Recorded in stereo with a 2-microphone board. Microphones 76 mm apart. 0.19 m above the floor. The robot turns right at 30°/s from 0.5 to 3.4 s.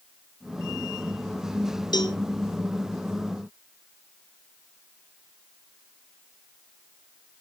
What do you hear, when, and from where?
1.9 s a cowbell: 65° left (ahead or behind), 0.9 m; by 2.2 s 70° left (ahead or behind), 0.9 m